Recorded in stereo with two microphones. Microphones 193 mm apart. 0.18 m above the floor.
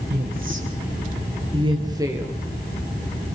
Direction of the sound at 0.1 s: 55° right (ahead or behind).